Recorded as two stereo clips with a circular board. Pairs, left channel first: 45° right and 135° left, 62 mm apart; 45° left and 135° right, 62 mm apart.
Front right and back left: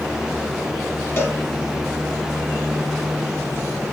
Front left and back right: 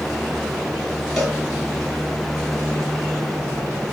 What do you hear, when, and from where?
1.2 s a cowbell: 40° right, 1.5 m